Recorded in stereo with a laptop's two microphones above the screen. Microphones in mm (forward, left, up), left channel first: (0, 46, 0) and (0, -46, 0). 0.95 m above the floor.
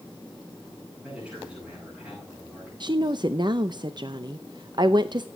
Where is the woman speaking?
50° right (ahead or behind), 0.6 m.